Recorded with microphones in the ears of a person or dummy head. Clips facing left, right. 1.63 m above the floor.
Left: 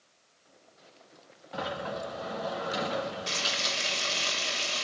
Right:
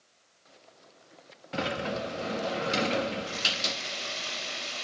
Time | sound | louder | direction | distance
1.5 | a sliding door | right 3 dB | 35° right (ahead or behind) | 1.4 m
3.3 | frying | even | 55° left (ahead or behind) | 8.5 m